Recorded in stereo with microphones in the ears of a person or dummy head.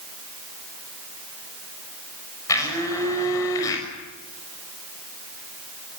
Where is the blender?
15° left (ahead or behind), 6 m.